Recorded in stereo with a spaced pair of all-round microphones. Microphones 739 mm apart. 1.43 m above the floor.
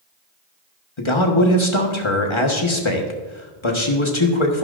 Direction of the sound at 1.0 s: 40° left (ahead or behind).